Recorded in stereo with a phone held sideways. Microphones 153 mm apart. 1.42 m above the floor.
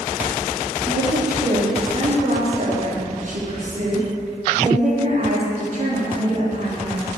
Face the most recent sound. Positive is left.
turn(degrees=-55)  # may be behind; listen again after turning